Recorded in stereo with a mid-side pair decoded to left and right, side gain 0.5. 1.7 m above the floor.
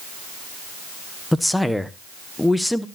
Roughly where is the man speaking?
Ahead.